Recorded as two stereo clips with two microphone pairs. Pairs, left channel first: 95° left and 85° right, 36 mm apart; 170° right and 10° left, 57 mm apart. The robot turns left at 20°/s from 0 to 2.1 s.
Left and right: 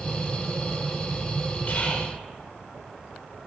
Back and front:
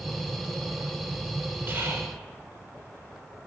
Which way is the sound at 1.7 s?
60° left.